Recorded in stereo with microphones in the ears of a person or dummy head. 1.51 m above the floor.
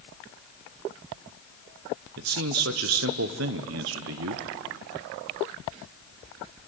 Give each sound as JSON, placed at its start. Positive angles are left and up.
{"t": 2.2, "sound": "a man speaking", "side_deg": -65, "distance_m": 0.9}